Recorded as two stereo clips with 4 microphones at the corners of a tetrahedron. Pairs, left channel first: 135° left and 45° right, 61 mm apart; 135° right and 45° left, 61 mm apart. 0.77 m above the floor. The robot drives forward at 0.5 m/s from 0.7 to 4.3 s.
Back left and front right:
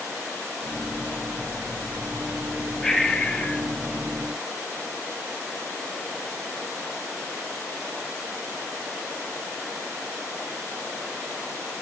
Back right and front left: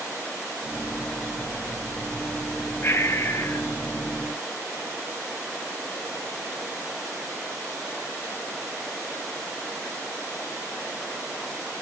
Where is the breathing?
150° right, 0.9 m; by 3.7 s 165° right, 1.2 m.